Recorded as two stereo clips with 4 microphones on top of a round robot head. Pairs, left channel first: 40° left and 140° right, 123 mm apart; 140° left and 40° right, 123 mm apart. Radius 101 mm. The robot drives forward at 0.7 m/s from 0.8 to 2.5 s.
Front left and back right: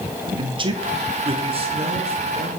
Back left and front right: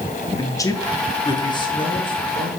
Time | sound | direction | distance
0.4 | a man speaking | 165° right | 1.0 m